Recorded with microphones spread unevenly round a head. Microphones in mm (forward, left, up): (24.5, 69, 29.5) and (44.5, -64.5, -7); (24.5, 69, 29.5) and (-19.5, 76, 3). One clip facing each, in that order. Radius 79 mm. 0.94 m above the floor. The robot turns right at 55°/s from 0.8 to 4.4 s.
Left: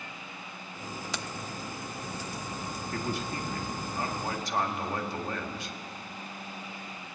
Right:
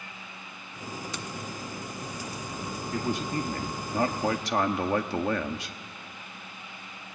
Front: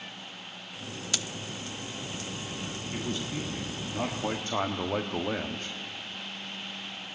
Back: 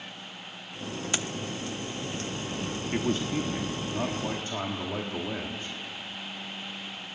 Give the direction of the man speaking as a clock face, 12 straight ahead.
6 o'clock.